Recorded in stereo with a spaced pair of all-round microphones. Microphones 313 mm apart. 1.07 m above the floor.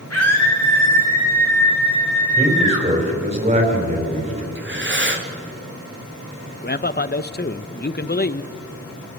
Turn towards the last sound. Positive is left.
turn(degrees=35)  # may be behind; listen again after turning